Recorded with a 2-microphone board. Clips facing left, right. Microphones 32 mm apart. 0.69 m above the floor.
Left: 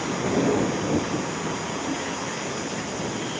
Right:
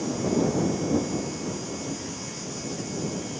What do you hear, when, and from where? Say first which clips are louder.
0.0 s a vehicle: left 2 dB; 50° left (ahead or behind)